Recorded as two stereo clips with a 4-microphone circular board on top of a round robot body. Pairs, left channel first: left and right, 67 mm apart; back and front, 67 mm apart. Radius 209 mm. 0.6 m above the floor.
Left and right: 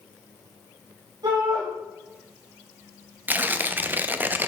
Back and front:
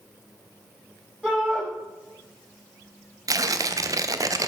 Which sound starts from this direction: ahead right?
Tearing paper, at 3.3 s.